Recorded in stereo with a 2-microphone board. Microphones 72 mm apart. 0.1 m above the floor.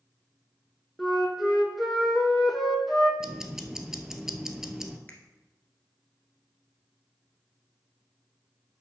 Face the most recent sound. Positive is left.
turn(degrees=25)  # may be behind; listen again after turning